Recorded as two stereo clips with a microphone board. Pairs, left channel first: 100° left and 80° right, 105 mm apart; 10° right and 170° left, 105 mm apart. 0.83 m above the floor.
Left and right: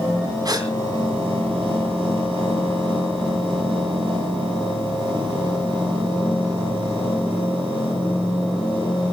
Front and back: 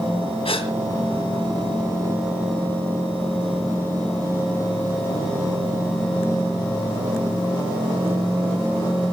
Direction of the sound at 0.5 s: 30° right.